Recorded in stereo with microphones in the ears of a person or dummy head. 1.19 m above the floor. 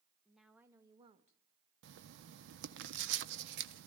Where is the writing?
65° right (ahead or behind), 1.0 m.